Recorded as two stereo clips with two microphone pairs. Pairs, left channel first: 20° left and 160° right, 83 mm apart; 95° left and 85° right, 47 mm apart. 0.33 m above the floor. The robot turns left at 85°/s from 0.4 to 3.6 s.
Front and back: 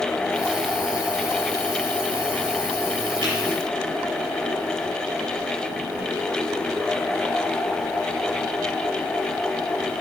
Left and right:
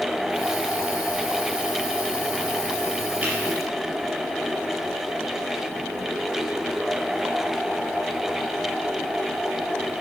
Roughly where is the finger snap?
Behind right.